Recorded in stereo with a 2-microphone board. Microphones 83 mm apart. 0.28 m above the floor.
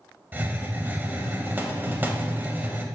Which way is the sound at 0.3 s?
25° right (ahead or behind).